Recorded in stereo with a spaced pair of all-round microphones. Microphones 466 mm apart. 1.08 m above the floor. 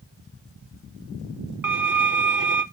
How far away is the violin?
About 0.5 m.